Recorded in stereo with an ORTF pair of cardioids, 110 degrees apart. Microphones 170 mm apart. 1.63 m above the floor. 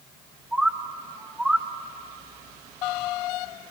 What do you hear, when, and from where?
0.5 s a bird: 5° right, 0.8 m